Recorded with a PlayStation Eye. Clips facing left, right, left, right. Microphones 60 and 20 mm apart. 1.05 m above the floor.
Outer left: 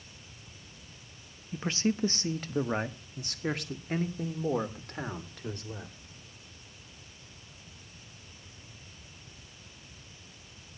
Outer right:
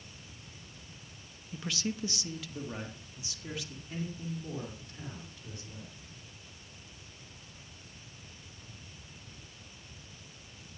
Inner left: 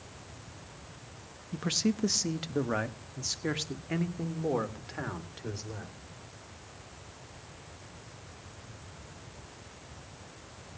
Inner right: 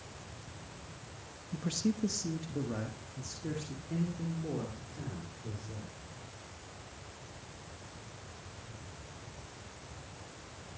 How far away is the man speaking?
About 0.9 m.